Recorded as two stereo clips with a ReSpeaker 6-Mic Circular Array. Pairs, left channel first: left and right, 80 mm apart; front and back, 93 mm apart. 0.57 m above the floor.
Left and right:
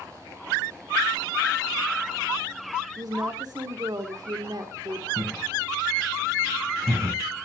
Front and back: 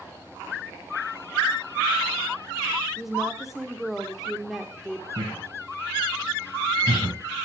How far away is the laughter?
About 5 m.